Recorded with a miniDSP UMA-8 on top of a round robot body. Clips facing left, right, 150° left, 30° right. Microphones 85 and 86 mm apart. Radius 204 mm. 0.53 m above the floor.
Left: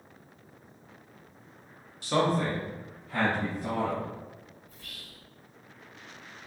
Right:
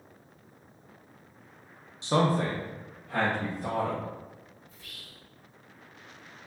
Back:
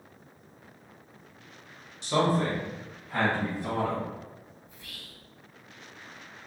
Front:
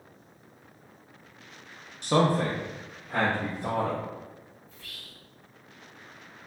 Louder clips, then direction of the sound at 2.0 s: Right 1 dB, front 2 dB; 30° right.